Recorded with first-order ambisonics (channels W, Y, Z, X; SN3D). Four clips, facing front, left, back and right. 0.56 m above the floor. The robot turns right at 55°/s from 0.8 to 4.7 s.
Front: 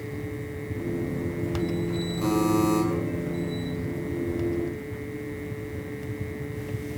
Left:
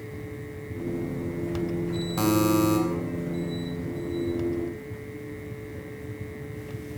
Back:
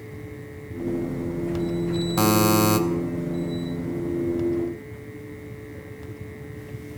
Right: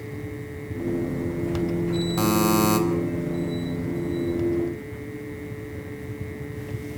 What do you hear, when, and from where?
2.2 s a buzzer: 175° right, 3.5 m; by 2.8 s 140° right, 3.5 m